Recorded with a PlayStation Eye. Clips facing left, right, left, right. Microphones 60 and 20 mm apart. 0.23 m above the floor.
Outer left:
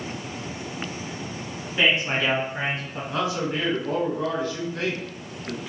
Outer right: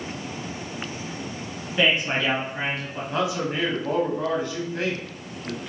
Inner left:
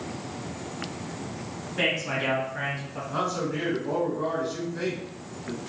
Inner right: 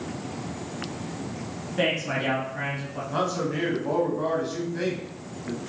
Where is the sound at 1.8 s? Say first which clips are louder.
Even, inner right 1 dB; centre (ahead or behind), 1.2 m; by 3.0 s 25° left (ahead or behind), 1.4 m.